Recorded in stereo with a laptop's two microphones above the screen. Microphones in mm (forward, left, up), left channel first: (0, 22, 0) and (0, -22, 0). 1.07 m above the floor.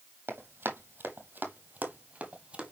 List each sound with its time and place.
0.3 s running footsteps: 55° right (ahead or behind), 1.8 m; by 2.7 s 20° right (ahead or behind), 1.4 m